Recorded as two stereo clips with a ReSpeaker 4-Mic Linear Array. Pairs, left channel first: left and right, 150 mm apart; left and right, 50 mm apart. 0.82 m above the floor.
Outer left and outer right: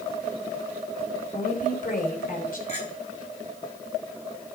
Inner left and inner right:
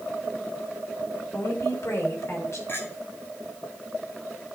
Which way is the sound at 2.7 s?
50° left (ahead or behind).